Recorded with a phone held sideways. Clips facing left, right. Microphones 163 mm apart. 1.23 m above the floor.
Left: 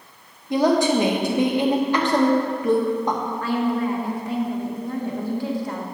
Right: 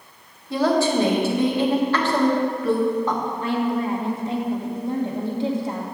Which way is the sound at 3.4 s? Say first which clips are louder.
Left 1 dB; 20° right (ahead or behind).